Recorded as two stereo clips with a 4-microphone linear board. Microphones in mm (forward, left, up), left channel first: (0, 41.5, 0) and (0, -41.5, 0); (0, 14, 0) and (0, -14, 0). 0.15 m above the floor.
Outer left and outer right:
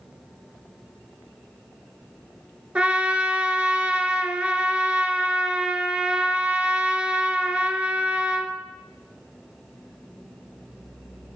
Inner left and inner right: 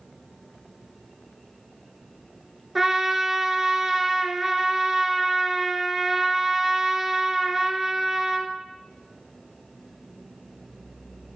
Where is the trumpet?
15° right (ahead or behind), 0.9 m.